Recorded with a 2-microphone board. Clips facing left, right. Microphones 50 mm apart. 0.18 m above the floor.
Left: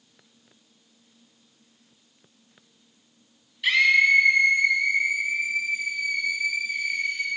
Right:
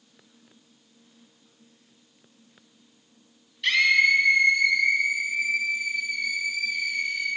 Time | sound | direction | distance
3.6 | a scream | 5° left (ahead or behind) | 1.0 m